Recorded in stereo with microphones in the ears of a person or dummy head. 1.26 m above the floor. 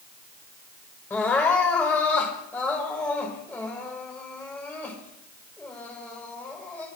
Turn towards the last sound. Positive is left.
turn(degrees=10)  # may be behind; listen again after turning